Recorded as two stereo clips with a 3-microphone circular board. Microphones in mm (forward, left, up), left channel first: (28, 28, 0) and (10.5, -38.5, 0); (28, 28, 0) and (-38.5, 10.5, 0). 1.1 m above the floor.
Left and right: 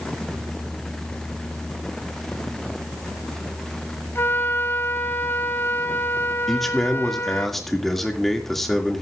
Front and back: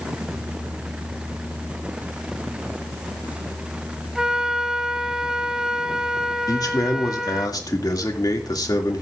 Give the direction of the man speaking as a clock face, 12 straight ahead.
12 o'clock.